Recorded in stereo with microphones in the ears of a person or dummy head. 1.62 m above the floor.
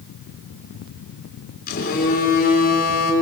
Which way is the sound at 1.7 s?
55° left (ahead or behind).